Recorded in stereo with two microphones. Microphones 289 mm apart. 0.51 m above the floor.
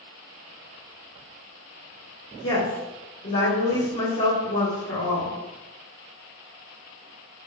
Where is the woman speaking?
50° left (ahead or behind), 1.1 m.